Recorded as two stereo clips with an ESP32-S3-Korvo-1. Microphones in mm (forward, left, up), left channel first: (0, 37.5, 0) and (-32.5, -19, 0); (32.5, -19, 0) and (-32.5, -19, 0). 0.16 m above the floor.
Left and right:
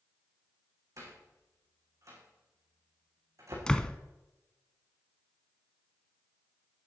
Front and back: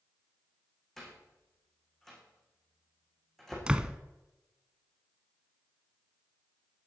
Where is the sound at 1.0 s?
85° right, 6.5 m.